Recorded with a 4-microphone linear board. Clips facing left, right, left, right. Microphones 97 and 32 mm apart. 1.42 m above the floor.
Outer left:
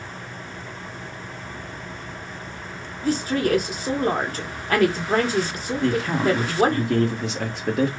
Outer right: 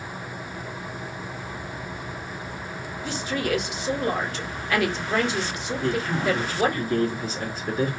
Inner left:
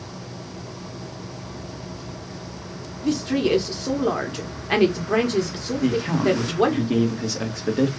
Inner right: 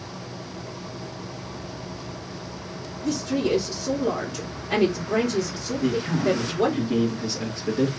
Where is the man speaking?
85° left, 1.3 m.